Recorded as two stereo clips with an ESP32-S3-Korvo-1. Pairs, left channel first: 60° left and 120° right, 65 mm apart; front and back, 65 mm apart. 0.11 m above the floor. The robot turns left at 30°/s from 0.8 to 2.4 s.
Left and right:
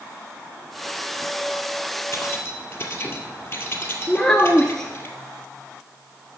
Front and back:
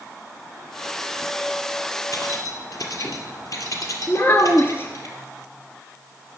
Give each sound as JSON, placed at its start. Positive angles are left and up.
{"t": 2.1, "sound": "keys jangling", "azimuth_deg": 20, "distance_m": 1.6}
{"t": 4.1, "sound": "a child speaking", "azimuth_deg": -20, "distance_m": 1.1}